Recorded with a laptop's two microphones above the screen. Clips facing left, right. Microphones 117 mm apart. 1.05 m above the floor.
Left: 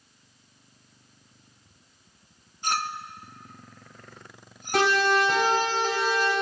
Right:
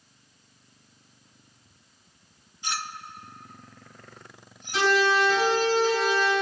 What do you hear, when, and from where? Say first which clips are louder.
2.6 s a clink: left 5 dB; 45° left (ahead or behind), 0.5 m
4.7 s a siren: even; 60° left (ahead or behind), 6 m; by 6.3 s 45° left (ahead or behind), 6.5 m